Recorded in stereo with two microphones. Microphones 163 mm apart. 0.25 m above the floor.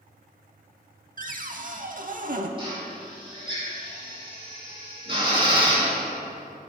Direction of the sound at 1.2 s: 55° right (ahead or behind).